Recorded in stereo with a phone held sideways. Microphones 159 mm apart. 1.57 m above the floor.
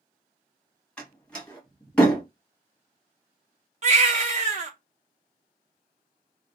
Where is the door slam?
5° left (ahead or behind), 1.2 m.